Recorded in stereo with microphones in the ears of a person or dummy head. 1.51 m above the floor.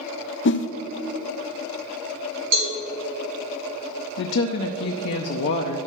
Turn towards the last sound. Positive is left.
turn(degrees=55)  # may be behind; listen again after turning